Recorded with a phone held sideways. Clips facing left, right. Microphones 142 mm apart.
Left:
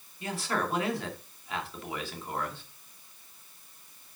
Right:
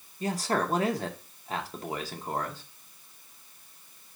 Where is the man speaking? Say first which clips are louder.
Right 4 dB; 40° right (ahead or behind), 2 m.